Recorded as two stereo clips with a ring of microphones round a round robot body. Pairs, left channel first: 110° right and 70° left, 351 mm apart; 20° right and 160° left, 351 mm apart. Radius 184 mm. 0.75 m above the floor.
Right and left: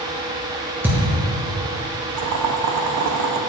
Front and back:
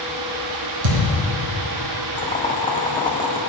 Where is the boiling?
50° left, 1.1 m.